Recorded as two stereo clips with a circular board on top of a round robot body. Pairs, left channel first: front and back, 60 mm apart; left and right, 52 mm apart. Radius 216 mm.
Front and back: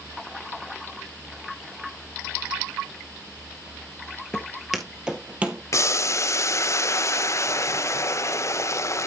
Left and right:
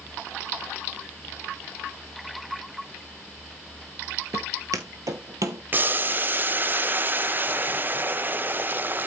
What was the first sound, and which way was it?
Footsteps, 75° right.